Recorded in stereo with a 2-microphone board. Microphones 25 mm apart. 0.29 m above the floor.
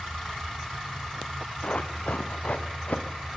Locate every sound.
1.6 s running footsteps: 55° left (ahead or behind), 1.8 m; by 3.3 s 80° left, 3 m